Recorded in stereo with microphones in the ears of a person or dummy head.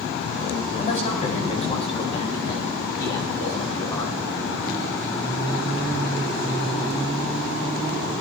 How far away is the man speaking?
About 4.5 m.